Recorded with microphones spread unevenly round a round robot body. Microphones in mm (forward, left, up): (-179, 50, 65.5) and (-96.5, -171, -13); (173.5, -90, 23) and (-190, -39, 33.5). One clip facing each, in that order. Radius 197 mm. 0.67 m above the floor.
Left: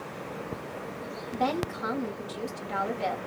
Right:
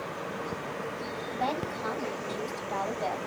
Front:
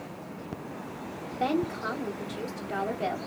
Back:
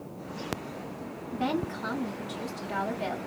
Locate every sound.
1.3 s a woman speaking: 100° left, 1.9 m